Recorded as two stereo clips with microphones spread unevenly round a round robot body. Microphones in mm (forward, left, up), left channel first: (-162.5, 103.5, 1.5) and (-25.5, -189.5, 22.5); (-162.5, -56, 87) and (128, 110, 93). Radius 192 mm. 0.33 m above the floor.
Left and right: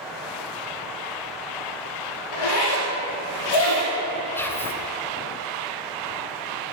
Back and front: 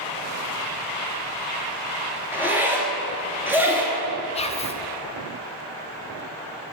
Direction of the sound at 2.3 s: 115° left.